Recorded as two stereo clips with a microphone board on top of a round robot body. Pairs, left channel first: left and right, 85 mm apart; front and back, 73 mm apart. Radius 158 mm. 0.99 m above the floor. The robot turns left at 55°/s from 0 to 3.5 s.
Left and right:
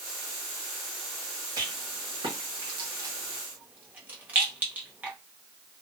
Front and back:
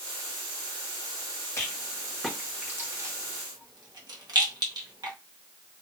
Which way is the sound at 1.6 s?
55° right.